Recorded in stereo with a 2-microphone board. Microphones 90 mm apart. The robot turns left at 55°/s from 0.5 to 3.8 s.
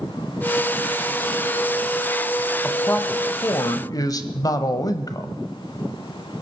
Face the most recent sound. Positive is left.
turn(degrees=100)